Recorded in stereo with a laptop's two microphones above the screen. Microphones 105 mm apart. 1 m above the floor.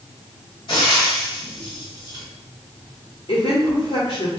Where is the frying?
50° left (ahead or behind), 1.6 m.